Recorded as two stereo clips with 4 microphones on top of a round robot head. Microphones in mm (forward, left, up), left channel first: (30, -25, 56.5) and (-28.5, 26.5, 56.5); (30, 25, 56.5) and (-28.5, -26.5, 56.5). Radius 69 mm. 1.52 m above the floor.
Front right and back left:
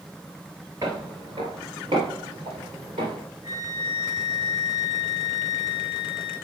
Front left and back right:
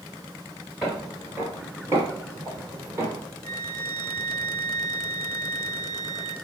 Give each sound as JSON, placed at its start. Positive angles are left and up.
{"t": 0.8, "sound": "footsteps", "azimuth_deg": 135, "distance_m": 1.5}
{"t": 3.4, "sound": "a flute", "azimuth_deg": -170, "distance_m": 4.0}